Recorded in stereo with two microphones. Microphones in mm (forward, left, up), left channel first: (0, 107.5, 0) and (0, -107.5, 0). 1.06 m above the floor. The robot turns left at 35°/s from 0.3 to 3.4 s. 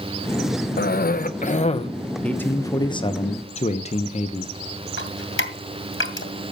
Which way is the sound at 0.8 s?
75° left.